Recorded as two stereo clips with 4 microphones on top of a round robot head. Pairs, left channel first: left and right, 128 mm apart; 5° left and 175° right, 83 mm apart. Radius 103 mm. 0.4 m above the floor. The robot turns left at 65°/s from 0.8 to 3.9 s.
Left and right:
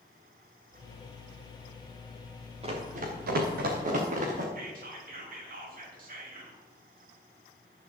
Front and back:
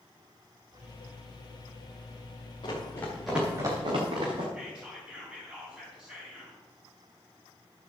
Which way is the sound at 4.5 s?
95° right.